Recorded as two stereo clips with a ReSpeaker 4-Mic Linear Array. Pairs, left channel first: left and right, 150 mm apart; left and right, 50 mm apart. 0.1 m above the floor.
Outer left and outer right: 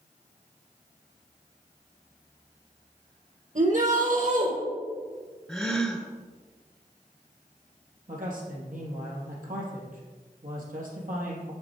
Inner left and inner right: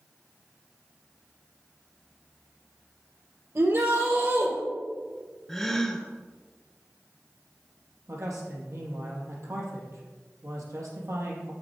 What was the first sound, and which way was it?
A shout, 55° right (ahead or behind).